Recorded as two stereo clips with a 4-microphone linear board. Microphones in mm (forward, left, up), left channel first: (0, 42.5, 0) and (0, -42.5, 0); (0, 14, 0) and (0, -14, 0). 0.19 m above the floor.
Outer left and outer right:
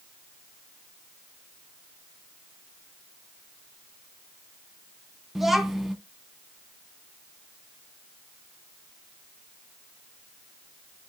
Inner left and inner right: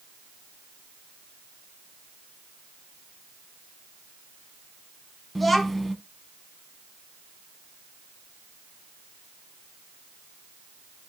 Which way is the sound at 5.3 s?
5° right (ahead or behind).